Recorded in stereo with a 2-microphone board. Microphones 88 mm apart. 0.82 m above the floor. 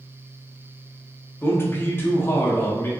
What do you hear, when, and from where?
1.4 s a man speaking: 25° left (ahead or behind), 0.6 m